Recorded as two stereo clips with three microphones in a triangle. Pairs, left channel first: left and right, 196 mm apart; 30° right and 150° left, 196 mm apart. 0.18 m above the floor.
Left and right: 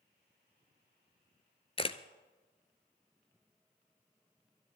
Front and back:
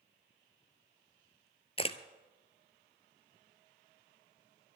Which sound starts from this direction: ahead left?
A camera shutter, at 1.8 s.